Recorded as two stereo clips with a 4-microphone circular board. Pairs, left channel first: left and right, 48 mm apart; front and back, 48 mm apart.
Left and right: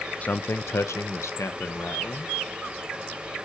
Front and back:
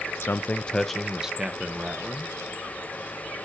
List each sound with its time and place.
0.2 s a man speaking: 30° left, 0.5 m; by 2.3 s 120° left, 1.4 m